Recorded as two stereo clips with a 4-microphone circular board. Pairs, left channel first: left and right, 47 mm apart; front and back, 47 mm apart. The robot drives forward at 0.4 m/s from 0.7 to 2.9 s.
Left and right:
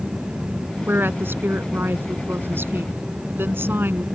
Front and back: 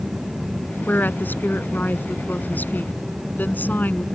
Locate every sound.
0.9 s a woman speaking: 45° right